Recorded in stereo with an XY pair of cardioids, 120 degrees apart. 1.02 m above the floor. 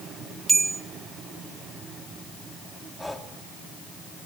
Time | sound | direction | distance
0.5 | a bell | 30° right | 0.7 m
3.0 | breathing | 5° left | 2.5 m